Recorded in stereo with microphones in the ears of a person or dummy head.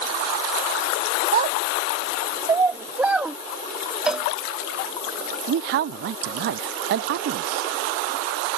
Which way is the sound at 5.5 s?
60° right (ahead or behind).